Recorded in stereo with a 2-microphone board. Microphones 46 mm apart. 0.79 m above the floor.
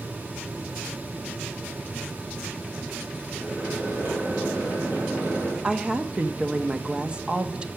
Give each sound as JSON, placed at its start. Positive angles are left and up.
{"t": 3.3, "sound": "a microwave", "side_deg": -45, "distance_m": 6.0}
{"t": 5.6, "sound": "a woman speaking", "side_deg": -20, "distance_m": 0.9}